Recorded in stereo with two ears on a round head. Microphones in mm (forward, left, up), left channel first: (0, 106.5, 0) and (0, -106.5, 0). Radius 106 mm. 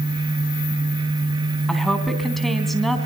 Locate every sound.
1.7 s a woman speaking: centre (ahead or behind), 3 m